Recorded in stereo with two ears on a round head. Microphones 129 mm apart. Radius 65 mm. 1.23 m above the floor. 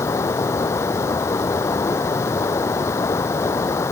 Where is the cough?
No cough in this recording.